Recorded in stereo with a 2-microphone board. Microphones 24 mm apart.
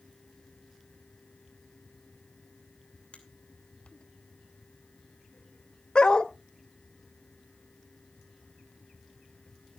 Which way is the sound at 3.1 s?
70° left (ahead or behind).